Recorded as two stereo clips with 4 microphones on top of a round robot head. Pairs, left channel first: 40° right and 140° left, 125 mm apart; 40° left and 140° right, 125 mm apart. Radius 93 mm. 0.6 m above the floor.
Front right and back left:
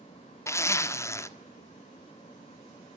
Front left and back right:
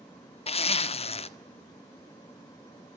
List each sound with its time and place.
0.5 s a zipper: 20° left, 1.6 m